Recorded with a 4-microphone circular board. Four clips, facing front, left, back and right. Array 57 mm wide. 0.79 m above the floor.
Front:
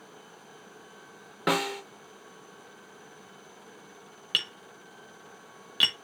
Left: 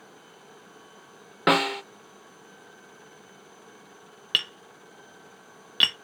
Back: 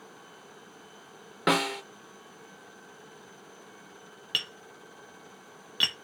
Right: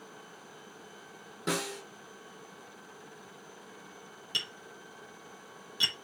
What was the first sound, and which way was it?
A snare drum, 95° left.